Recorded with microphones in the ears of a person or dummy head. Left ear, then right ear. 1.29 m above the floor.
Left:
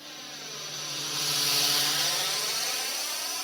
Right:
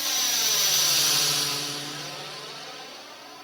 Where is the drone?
50° right (ahead or behind); by 3.5 s 65° left (ahead or behind).